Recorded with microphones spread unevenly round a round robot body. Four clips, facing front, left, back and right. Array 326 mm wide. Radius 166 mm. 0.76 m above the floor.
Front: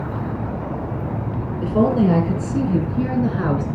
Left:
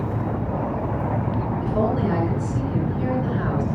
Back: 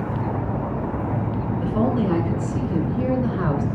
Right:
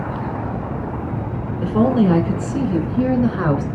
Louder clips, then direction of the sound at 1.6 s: Right 8 dB, front 5 dB; 50° right.